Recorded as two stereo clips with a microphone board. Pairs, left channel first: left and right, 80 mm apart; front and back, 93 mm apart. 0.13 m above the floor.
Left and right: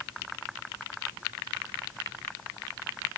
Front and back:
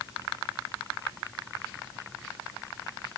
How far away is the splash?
No splash in this recording.